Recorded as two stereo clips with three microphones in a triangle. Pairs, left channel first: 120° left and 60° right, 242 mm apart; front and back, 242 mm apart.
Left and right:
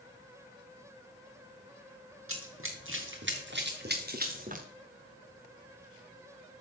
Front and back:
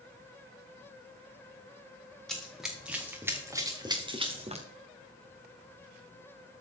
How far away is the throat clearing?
I don't hear throat clearing.